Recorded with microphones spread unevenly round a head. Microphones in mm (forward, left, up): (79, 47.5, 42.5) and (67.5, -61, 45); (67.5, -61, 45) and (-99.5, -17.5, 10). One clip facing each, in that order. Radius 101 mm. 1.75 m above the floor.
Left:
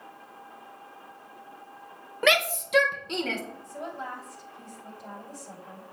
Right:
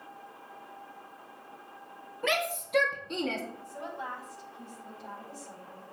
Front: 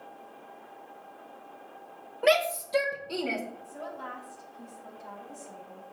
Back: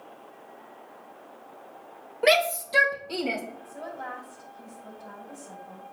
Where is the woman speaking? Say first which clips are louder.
Left 2 dB, back 2 dB; 45° left, 7.5 m.